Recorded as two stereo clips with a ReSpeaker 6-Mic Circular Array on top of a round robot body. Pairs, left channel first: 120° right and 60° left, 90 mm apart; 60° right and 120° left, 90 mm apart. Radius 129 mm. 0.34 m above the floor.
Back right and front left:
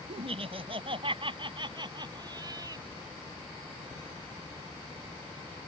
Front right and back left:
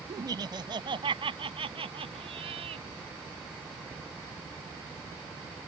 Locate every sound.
0.1 s laughter: 70° left; by 2.9 s 110° left